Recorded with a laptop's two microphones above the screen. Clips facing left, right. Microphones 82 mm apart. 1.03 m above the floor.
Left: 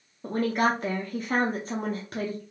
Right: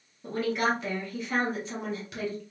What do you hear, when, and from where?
0.2 s a woman speaking: 40° left (ahead or behind), 0.7 m